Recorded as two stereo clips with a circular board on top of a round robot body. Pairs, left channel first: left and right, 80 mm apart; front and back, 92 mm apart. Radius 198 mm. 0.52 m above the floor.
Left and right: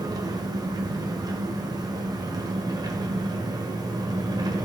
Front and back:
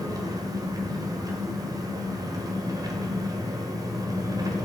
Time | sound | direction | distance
0.0 | an engine running | 130° right | 1.4 m